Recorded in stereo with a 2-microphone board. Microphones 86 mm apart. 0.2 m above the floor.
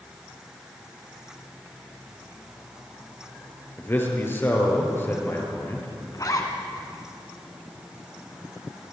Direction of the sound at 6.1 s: 45° left (ahead or behind).